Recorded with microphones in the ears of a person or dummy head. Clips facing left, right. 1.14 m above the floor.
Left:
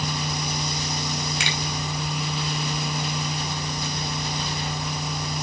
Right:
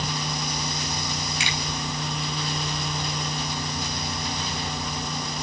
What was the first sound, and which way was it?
A finger snap, 45° left (ahead or behind).